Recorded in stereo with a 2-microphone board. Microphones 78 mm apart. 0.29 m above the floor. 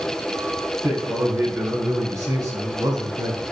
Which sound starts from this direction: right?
A man speaking, at 0.8 s.